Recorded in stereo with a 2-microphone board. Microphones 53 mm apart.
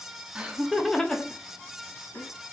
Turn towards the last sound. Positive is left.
turn(degrees=45)  # may be behind; listen again after turning